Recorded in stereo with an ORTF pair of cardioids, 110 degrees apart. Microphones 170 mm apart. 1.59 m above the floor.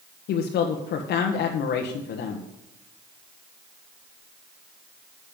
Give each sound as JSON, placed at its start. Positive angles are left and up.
{"t": 0.3, "sound": "a woman speaking", "azimuth_deg": 70, "distance_m": 1.5}